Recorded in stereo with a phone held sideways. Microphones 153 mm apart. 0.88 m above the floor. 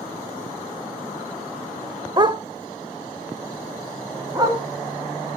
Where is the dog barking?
30° right (ahead or behind), 0.7 m; by 4.6 s 25° right (ahead or behind), 2 m.